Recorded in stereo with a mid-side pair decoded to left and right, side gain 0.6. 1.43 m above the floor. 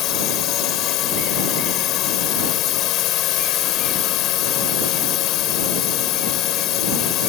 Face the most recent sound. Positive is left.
turn(degrees=65)